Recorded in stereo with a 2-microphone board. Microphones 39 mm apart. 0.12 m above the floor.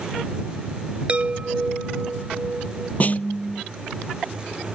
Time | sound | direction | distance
1.1 | a chime | 30° right (ahead or behind) | ?
3.0 | a snare drum | 40° left (ahead or behind) | ?